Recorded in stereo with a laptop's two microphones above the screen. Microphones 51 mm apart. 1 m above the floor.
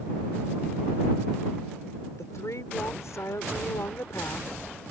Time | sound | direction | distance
2.2 | a woman speaking | 80° left | ?